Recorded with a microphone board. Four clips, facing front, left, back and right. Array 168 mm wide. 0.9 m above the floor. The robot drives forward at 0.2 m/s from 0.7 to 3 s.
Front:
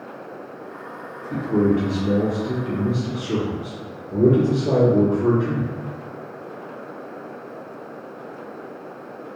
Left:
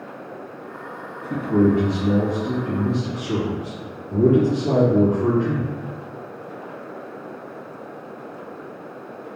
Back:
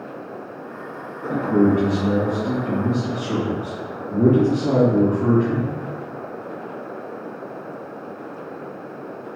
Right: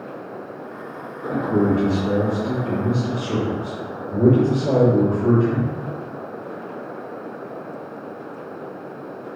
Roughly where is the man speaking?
Behind left.